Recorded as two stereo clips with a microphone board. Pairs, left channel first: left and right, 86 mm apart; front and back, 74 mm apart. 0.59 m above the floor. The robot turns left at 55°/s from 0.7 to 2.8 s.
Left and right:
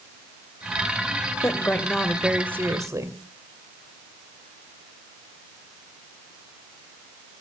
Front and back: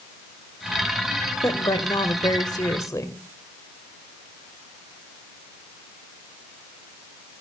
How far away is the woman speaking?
About 1.9 m.